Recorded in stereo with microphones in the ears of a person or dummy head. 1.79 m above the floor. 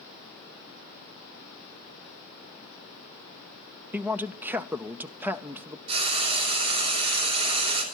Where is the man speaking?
5° right (ahead or behind), 0.5 m.